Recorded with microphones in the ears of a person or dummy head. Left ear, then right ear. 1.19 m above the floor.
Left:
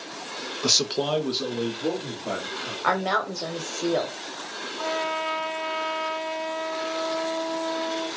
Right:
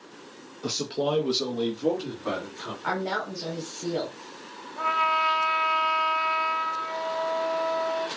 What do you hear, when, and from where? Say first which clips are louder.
0.6 s a man speaking: left 5 dB; 60° left (ahead or behind), 0.8 m; by 2.7 s 50° right (ahead or behind), 2.5 m
2.8 s a woman speaking: left 5 dB; 45° left (ahead or behind), 1.0 m
4.8 s a trumpet: right 5 dB; 75° right (ahead or behind), 2 m